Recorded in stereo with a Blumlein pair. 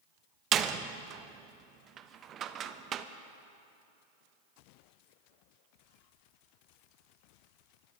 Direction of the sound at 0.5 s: 25° right.